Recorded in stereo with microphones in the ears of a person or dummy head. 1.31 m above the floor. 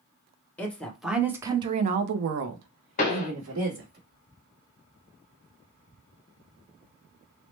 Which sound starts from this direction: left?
A pop, at 3.0 s.